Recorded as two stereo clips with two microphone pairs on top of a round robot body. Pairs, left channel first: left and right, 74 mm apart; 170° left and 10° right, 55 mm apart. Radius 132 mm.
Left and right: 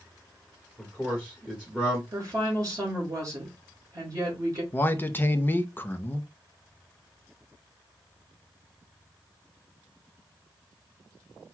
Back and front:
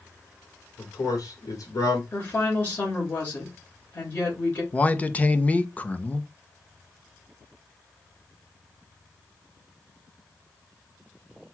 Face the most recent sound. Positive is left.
turn(degrees=135)